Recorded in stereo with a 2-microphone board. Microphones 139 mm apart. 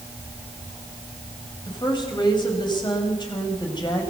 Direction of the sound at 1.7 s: 35° left (ahead or behind).